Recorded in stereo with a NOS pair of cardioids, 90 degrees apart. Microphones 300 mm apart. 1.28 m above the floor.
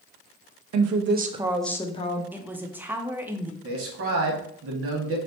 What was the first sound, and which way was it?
A woman speaking, 65° right.